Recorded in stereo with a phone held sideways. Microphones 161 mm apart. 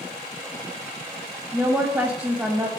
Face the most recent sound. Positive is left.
turn(degrees=-15)  # may be behind; listen again after turning